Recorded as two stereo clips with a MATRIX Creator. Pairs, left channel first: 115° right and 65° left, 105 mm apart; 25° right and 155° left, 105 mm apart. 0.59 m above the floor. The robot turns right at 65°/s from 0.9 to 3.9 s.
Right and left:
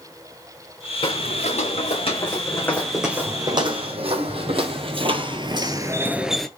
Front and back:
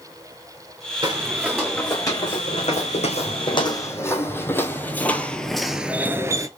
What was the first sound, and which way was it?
Footsteps, 150° right.